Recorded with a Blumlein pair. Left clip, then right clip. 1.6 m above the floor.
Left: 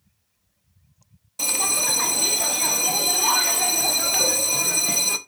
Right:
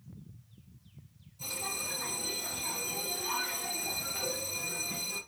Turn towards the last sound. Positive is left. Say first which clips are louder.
# left 14 dB
turn(degrees=45)